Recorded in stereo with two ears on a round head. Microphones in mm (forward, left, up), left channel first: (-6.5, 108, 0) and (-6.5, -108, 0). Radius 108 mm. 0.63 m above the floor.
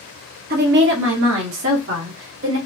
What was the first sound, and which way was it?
A woman speaking, 40° right (ahead or behind).